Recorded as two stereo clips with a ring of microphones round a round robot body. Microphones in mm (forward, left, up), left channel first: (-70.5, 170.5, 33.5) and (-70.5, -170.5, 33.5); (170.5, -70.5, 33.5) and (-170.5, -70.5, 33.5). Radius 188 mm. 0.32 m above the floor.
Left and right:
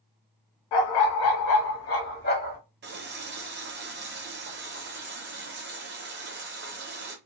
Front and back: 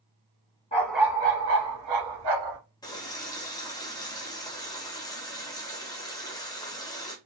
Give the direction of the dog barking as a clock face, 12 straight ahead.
10 o'clock.